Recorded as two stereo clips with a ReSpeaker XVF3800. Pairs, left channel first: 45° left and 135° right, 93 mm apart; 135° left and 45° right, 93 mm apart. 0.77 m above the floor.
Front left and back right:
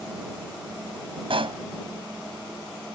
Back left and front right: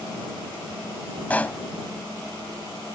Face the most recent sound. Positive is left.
turn(degrees=-150)